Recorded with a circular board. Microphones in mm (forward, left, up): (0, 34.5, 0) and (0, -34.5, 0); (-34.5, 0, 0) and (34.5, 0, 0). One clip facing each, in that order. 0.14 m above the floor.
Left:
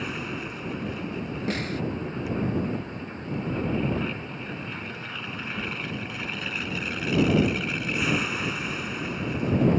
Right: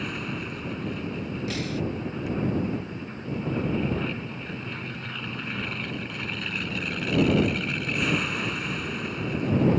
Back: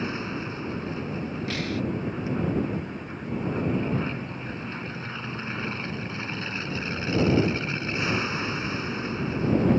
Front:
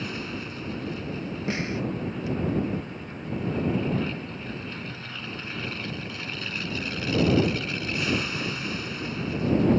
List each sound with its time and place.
0.0 s an aircraft: 170° left
1.5 s a snare drum: 60° left